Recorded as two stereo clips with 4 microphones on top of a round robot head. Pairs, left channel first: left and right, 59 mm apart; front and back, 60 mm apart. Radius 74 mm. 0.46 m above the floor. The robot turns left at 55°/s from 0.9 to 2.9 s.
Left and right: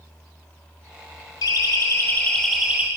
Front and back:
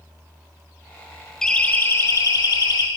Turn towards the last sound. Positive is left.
turn(degrees=-25)